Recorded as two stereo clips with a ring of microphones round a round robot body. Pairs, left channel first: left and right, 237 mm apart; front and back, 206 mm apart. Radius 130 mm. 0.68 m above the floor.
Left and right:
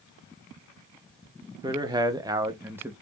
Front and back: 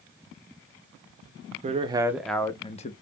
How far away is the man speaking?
About 0.6 m.